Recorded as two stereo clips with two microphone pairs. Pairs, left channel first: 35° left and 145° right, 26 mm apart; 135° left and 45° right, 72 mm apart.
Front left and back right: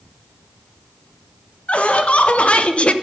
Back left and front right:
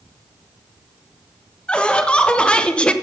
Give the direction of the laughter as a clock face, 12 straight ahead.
10 o'clock.